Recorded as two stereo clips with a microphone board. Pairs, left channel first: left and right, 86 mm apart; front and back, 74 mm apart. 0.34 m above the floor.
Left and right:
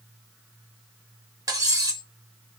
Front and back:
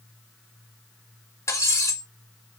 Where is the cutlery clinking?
45° right, 1.4 m.